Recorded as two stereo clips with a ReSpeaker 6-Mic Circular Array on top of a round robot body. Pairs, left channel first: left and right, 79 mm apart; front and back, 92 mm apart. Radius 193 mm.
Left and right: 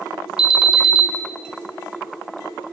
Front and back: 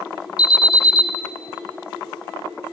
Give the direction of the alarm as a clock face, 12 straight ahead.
12 o'clock.